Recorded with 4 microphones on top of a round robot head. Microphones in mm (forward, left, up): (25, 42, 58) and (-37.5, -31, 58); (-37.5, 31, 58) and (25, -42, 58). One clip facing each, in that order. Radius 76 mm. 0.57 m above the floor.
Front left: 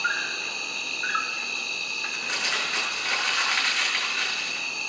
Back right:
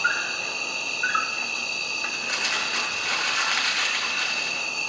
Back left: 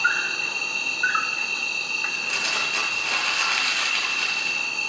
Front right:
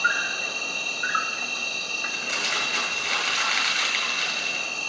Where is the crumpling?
35° right, 9 m.